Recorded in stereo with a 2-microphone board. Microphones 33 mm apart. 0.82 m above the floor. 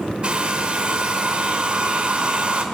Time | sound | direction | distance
0.2 | a hair dryer | 30° right (ahead or behind) | 2.5 m